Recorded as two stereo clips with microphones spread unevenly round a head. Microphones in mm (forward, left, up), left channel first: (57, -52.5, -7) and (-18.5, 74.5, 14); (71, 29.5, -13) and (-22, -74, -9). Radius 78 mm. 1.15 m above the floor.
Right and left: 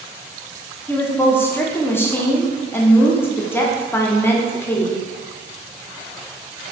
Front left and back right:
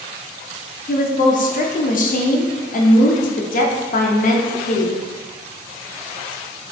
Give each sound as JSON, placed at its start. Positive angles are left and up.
{"t": 0.9, "sound": "a woman speaking", "azimuth_deg": 15, "distance_m": 0.6}